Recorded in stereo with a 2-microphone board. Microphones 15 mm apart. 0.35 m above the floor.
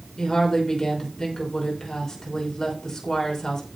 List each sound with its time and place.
0.2 s a woman speaking: 35° left (ahead or behind), 5 m